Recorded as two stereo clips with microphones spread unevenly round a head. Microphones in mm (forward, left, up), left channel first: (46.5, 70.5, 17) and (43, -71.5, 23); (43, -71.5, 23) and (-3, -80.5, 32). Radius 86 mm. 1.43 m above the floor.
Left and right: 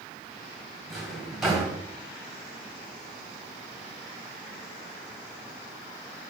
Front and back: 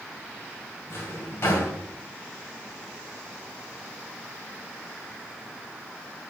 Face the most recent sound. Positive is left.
turn(degrees=-5)